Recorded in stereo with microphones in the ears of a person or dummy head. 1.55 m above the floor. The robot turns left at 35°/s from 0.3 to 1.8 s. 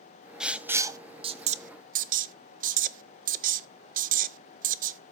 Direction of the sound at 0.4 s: Centre (ahead or behind).